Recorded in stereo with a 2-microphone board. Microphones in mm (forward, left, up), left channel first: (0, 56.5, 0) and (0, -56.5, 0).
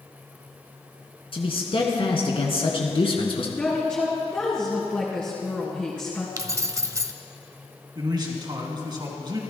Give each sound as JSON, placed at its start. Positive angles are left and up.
{"t": 1.3, "sound": "a man speaking", "side_deg": 55, "distance_m": 2.5}
{"t": 3.6, "sound": "a woman speaking", "side_deg": 20, "distance_m": 3.0}
{"t": 6.4, "sound": "keys jangling", "side_deg": -30, "distance_m": 0.8}
{"t": 8.0, "sound": "a man speaking", "side_deg": -40, "distance_m": 3.0}